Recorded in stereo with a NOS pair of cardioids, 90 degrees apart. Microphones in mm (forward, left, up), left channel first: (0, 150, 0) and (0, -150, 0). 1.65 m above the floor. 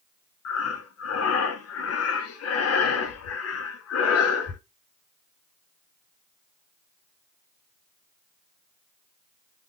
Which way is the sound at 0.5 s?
50° left.